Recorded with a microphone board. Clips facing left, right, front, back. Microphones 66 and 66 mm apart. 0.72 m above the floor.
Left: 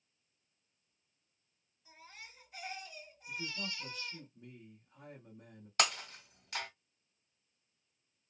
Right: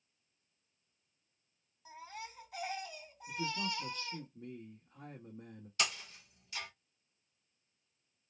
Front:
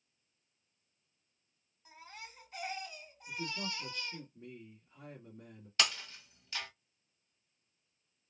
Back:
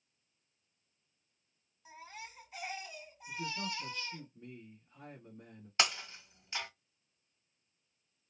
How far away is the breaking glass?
About 0.7 m.